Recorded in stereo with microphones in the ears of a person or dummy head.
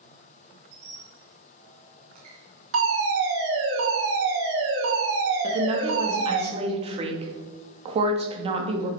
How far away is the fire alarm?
About 3 m.